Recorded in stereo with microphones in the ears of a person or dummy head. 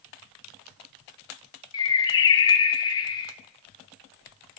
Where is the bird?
25° left (ahead or behind), 0.5 m.